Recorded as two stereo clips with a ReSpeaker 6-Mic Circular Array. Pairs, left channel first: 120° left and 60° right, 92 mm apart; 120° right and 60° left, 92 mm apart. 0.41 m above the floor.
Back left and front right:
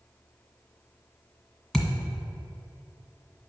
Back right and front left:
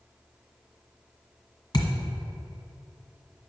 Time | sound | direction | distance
1.7 | a thud | 160° right | 1.5 m